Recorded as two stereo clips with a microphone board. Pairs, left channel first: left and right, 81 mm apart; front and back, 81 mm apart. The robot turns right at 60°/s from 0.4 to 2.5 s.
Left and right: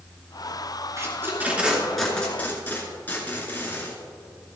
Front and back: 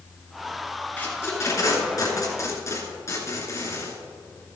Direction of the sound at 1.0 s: 60° right.